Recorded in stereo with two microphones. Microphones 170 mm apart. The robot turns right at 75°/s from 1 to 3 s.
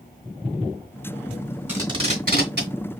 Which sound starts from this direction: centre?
Tape being pulled, at 1.7 s.